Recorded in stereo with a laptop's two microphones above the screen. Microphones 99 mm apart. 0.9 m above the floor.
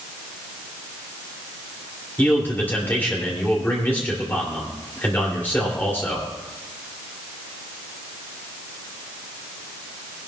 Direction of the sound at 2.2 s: 20° left (ahead or behind).